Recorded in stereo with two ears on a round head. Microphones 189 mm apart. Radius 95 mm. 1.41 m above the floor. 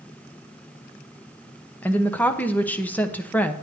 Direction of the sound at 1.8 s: 10° left (ahead or behind).